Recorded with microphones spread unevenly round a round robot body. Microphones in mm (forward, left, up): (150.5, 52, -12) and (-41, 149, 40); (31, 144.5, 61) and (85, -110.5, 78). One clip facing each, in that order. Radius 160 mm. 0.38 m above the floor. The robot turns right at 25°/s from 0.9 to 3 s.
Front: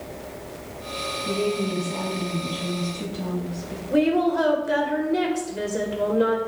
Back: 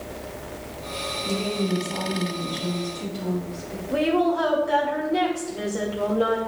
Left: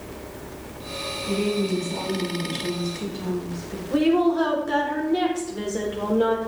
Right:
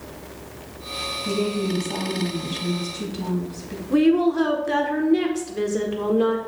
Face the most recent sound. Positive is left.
turn(degrees=-50)